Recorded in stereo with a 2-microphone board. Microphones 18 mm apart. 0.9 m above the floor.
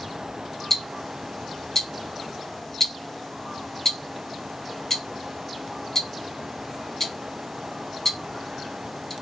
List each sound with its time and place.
0.7 s ticking: 15° left (ahead or behind), 0.6 m